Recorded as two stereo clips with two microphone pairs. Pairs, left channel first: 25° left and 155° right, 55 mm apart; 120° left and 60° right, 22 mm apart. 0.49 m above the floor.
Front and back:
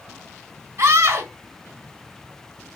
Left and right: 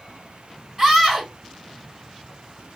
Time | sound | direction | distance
0.8 | a scream | 125° right | 2 m